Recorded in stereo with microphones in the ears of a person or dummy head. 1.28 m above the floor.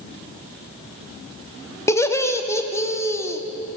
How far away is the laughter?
About 0.7 m.